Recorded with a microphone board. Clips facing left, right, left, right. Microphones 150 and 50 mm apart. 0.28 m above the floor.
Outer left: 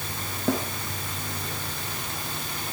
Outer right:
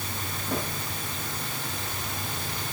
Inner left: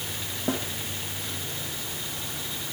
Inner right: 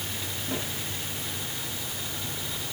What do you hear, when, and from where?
0.5 s a snare drum: 80° left, 8 m